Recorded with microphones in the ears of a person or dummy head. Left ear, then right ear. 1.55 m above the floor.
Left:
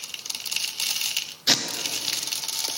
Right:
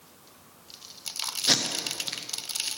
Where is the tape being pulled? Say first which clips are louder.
Left 2 dB; centre (ahead or behind), 0.8 m.